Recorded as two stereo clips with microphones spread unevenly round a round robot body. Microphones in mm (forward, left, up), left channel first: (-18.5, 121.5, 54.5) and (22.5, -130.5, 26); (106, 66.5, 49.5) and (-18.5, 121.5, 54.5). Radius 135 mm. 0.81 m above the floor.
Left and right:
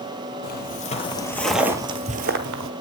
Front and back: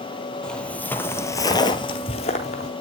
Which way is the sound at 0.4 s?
60° left.